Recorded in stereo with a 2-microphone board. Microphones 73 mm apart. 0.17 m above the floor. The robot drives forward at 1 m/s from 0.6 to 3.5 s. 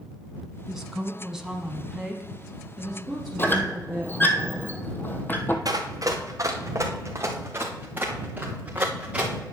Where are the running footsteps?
55° right (ahead or behind), 2.5 m; by 9.3 s 15° right (ahead or behind), 3.5 m.